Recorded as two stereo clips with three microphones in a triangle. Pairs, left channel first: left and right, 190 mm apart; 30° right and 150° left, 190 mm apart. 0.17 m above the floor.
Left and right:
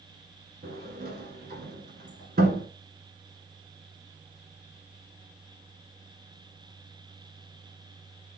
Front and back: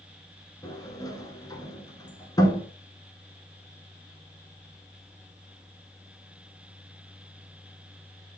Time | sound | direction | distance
0.6 | a sliding door | 95° right | 0.9 m